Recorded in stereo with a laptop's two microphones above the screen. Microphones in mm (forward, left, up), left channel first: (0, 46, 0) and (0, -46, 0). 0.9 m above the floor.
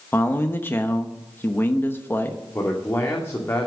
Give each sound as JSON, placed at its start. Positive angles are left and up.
{"t": 0.1, "sound": "a man speaking", "side_deg": 25, "distance_m": 1.0}
{"t": 2.5, "sound": "a man speaking", "side_deg": 30, "distance_m": 2.5}